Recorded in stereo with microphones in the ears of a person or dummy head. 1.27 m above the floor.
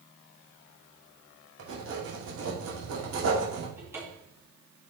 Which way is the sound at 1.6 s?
85° right.